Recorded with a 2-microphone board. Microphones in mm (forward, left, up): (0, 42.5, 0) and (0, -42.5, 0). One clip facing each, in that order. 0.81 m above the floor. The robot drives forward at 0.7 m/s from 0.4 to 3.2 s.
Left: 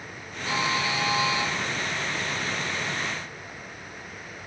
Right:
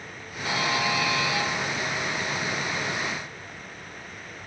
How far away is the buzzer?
About 10 m.